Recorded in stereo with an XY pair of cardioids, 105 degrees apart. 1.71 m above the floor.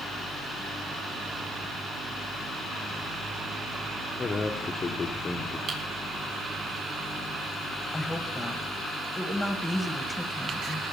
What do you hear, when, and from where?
4.2 s a man speaking: 30° left, 1.3 m
5.7 s typing on a keyboard: 55° right, 4.5 m
7.9 s a woman speaking: 10° left, 1.7 m